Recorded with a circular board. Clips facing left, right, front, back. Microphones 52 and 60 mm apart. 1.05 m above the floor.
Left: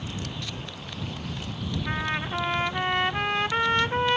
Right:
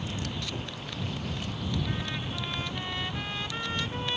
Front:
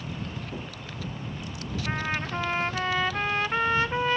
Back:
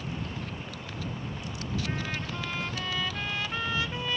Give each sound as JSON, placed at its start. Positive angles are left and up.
{"t": 0.5, "sound": "a gunshot", "azimuth_deg": -20}
{"t": 1.9, "sound": "a trumpet", "azimuth_deg": 50}